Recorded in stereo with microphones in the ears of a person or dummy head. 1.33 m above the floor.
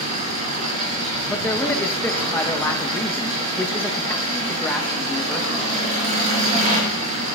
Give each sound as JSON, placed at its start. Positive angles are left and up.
{"t": 0.0, "sound": "an engine running", "side_deg": -40, "distance_m": 4.0}
{"t": 1.3, "sound": "a man speaking", "side_deg": 5, "distance_m": 1.2}